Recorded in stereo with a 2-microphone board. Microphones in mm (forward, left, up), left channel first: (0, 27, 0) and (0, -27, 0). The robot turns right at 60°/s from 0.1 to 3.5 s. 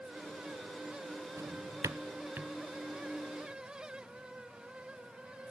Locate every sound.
1.4 s a drawer: 60° right (ahead or behind), 0.5 m; by 2.5 s 30° right (ahead or behind), 0.5 m